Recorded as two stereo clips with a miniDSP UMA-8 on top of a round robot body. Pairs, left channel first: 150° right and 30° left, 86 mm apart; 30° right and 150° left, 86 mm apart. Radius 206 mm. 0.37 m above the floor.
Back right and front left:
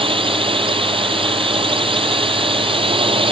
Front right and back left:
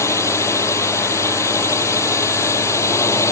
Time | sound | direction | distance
0.0 | a drone | 25° left | ?